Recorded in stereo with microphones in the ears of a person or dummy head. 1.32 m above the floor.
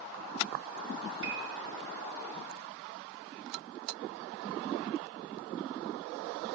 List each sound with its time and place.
1.2 s a piano: 65° right (ahead or behind), 6.5 m